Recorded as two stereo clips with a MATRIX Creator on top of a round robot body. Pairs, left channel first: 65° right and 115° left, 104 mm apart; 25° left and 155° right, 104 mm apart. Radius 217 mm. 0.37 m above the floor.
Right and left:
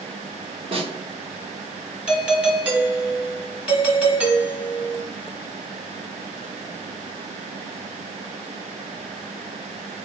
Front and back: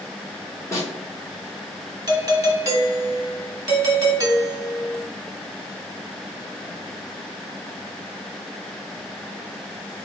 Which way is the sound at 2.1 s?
175° right.